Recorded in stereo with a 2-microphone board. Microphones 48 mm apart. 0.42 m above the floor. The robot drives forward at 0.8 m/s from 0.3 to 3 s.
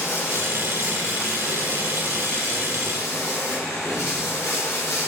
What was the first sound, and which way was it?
Running water, 60° left (ahead or behind).